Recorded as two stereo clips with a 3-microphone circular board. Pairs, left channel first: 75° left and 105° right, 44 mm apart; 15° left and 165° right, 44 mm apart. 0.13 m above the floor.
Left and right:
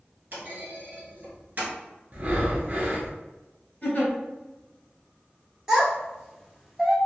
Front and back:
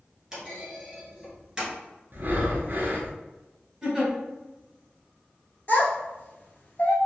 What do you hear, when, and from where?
0.3 s a clunk: 90° right, 1.5 m
2.1 s breathing: 145° right, 0.7 m
3.8 s a giggle: 120° left, 1.6 m
5.7 s a child speaking: 30° right, 1.1 m